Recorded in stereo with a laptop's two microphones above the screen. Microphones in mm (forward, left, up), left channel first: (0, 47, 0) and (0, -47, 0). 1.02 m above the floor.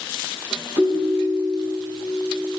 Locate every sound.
0.8 s a ringtone: 75° left (ahead or behind), 4 m